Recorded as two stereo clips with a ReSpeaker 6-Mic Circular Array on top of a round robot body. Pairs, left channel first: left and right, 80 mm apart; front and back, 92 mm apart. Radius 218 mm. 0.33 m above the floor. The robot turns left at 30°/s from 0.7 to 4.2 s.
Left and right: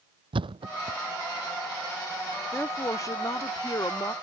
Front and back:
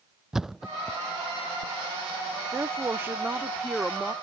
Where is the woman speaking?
135° left; by 4.1 s 85° left.